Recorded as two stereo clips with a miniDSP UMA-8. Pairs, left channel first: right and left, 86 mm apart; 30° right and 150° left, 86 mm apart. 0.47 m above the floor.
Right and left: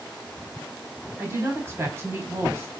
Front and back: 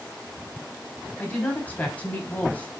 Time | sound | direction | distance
1.2 | a woman speaking | 35° left | 1.1 m